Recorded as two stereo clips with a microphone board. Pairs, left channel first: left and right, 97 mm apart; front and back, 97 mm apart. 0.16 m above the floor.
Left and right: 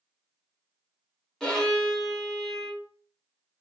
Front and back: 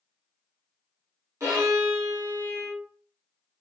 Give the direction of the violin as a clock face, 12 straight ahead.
6 o'clock.